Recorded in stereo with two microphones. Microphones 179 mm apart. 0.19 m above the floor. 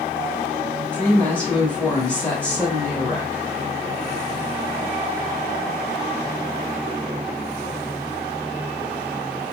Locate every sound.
0.9 s a woman speaking: 10° left (ahead or behind), 1.3 m